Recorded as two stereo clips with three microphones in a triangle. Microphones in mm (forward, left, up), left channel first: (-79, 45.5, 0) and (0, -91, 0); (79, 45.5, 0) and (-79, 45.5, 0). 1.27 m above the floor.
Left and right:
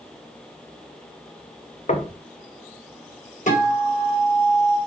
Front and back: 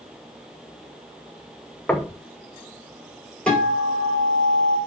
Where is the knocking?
80° left, 1.1 m.